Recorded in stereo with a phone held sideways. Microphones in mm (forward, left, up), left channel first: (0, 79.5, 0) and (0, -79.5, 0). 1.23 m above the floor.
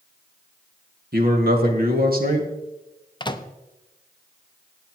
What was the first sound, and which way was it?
A man speaking, 70° right (ahead or behind).